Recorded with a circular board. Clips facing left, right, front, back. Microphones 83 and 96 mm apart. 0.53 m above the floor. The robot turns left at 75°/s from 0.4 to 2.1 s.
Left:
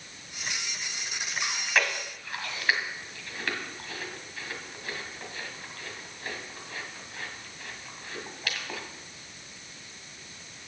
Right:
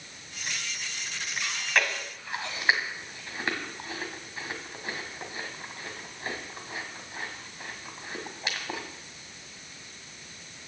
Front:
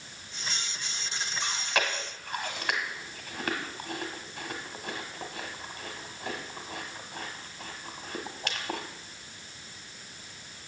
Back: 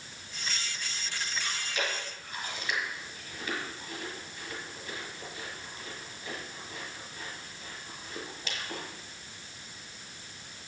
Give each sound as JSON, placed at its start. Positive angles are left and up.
{"t": 1.4, "sound": "chewing", "azimuth_deg": 25, "distance_m": 1.9}